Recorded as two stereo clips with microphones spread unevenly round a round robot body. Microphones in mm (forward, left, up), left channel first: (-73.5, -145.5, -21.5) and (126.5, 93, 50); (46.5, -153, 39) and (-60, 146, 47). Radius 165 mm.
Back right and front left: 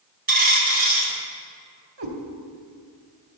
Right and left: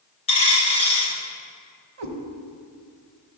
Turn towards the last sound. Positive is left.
turn(degrees=80)